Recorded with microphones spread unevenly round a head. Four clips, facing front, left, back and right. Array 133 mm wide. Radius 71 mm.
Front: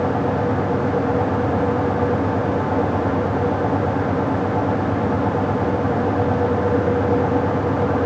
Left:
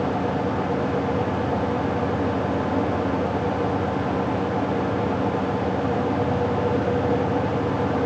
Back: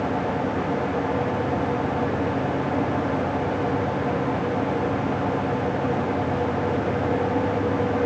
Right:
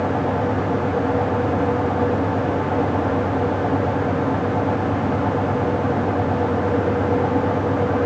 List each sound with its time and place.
Only background noise.